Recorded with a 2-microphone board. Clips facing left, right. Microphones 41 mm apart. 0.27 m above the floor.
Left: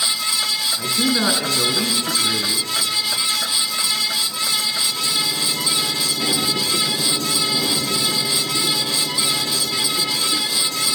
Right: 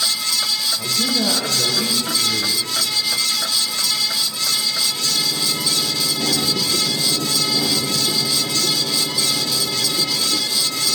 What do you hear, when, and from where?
0.8 s a man speaking: 60° left (ahead or behind), 3.5 m